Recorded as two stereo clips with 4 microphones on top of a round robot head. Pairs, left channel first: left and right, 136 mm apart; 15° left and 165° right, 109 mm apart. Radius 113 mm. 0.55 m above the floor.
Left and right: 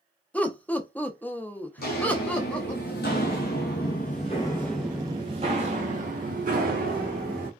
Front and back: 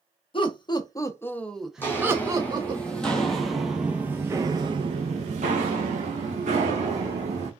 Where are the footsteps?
85° left, 1.6 m; by 7.5 s 120° right, 1.6 m.